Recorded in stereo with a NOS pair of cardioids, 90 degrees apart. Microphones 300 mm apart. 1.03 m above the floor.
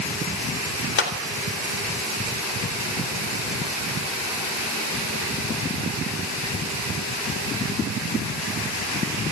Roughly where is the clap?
Ahead left.